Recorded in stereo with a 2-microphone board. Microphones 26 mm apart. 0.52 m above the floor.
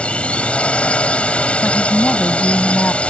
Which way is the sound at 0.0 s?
45° left (ahead or behind).